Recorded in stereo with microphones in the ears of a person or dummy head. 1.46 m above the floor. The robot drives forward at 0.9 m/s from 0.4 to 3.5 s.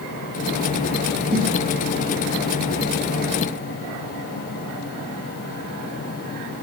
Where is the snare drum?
70° right (ahead or behind), 6.5 m.